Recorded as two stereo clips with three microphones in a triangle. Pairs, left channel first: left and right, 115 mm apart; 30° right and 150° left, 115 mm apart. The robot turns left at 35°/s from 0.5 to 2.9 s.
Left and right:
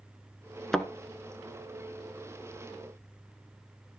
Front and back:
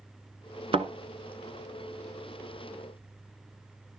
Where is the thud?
175° left, 1.0 m; by 0.9 s 170° left, 1.0 m.